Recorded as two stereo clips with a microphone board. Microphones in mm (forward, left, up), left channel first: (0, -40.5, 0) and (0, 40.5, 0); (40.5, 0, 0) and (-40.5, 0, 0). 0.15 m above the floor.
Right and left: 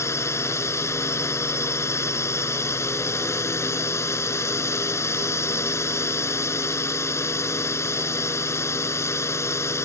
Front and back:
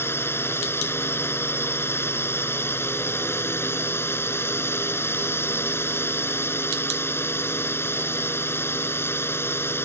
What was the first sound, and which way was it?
A drone, 50° right.